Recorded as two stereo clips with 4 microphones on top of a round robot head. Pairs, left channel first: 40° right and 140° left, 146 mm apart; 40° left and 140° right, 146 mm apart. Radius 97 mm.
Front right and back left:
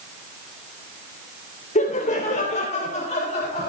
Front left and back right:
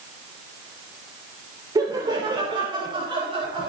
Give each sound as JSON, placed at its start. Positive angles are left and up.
{"t": 1.8, "sound": "laughter", "azimuth_deg": -75, "distance_m": 3.0}